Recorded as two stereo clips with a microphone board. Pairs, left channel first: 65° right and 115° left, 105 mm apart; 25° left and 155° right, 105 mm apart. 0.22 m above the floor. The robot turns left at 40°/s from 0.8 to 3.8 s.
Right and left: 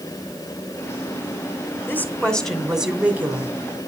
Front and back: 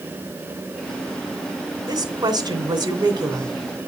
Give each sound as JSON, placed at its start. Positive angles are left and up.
{"t": 1.9, "sound": "a woman speaking", "azimuth_deg": -130, "distance_m": 2.0}